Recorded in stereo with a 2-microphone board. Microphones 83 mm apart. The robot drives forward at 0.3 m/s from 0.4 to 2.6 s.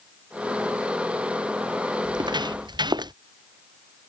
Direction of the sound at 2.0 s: 60° right (ahead or behind).